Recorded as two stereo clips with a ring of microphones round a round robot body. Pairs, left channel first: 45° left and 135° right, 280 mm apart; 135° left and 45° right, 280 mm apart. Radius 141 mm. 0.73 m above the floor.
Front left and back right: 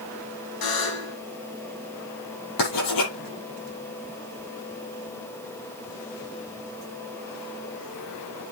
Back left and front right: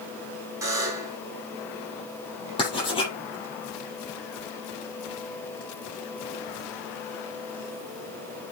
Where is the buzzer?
35° left, 4 m.